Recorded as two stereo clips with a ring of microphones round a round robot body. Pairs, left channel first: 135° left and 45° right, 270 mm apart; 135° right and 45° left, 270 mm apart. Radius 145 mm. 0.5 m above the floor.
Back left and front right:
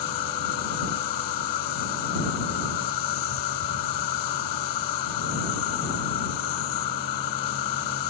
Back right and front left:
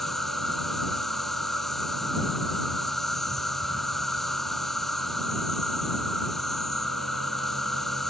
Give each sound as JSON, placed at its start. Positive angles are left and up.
{"t": 0.0, "sound": "an insect", "azimuth_deg": 135}